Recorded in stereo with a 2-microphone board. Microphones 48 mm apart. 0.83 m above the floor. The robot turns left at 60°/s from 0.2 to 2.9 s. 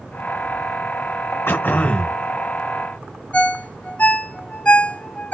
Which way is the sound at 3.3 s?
30° left (ahead or behind).